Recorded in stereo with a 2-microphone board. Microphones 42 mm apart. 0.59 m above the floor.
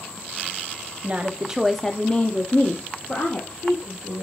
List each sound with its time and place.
1.0 s a woman speaking: 35° right (ahead or behind), 0.8 m; by 4.2 s 70° left (ahead or behind), 1.8 m